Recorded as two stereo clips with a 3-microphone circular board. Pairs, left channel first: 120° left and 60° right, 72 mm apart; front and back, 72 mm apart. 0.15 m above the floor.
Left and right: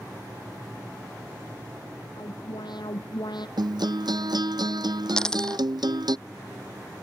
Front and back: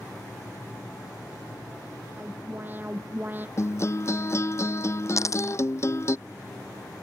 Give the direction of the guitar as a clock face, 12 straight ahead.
2 o'clock.